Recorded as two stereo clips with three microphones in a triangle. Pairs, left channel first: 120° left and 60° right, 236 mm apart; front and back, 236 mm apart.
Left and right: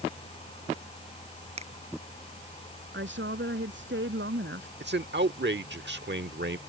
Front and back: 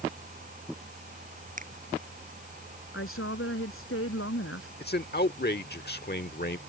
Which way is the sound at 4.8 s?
35° right.